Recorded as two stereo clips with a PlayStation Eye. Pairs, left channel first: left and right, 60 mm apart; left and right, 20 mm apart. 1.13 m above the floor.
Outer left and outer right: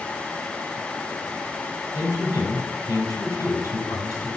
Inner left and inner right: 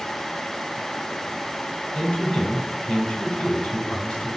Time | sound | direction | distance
1.9 | a man speaking | 80° left | 5.5 m